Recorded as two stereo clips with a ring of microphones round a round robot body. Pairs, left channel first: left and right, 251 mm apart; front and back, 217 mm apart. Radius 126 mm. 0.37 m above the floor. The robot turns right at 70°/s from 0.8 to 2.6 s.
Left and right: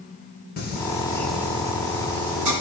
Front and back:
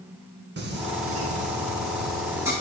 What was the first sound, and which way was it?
Singing, 145° left.